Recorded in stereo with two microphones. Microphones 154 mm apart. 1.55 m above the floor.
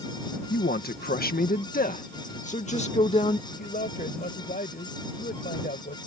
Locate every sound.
0.5 s a man speaking: 85° left; by 3.4 s 40° left (ahead or behind)
3.5 s a man speaking: 65° left (ahead or behind)